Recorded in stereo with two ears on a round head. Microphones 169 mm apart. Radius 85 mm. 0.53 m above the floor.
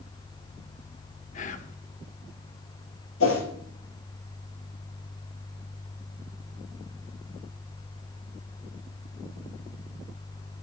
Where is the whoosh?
80° left, 3.5 m.